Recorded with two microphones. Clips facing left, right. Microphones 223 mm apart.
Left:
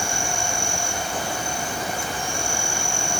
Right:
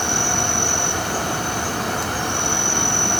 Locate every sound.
0.0 s an insect: 80° right, 1.8 m